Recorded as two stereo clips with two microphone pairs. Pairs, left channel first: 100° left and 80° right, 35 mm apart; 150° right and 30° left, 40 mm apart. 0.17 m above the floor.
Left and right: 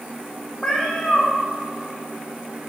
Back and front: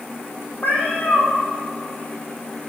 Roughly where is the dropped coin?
No dropped coin in this recording.